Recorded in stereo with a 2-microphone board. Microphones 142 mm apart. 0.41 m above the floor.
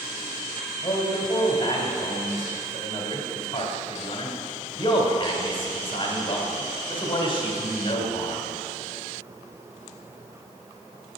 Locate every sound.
0.8 s a man speaking: 40° left (ahead or behind), 1.8 m